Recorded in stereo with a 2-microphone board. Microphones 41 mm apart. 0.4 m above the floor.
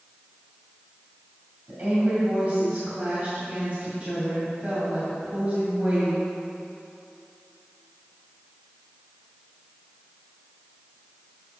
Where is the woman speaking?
40° right (ahead or behind), 2.5 m.